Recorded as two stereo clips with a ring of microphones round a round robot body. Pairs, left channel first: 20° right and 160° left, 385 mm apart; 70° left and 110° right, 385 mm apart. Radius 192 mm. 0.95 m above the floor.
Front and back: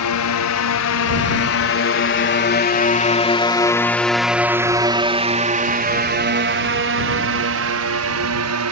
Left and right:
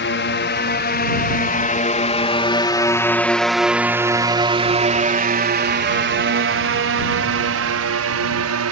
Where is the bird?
I don't hear a bird.